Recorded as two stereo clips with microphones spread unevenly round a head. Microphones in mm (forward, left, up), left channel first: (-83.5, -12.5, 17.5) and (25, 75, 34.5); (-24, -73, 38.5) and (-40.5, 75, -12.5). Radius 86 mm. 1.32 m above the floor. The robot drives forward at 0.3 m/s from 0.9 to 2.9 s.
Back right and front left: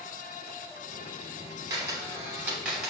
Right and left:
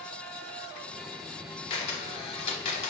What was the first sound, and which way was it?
A camera shutter, 25° right.